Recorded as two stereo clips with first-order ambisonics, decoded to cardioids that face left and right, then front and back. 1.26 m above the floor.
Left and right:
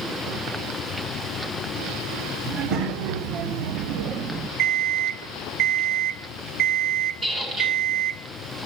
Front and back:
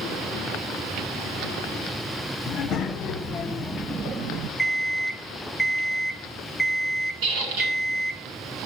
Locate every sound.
2.5 s a child speaking: 55° right, 1.4 m; by 4.5 s 155° right, 0.6 m
4.6 s an alarm clock: 85° right, 0.6 m
7.2 s a squeak: 160° right, 4 m